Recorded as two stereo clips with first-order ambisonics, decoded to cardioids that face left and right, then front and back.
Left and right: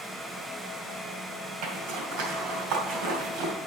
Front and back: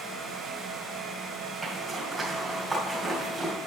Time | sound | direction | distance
1.6 | a zipper | 105° right | 2 m